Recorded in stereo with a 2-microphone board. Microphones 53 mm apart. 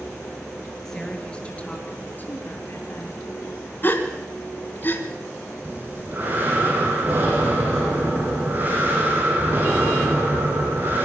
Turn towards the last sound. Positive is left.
turn(degrees=-35)  # may be behind; listen again after turning